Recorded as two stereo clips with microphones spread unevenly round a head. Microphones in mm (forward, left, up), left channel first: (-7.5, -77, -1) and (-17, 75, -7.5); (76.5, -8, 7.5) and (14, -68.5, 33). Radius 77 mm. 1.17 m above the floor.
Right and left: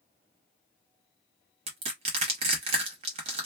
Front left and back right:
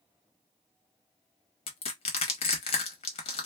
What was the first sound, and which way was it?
Crushing, 40° left.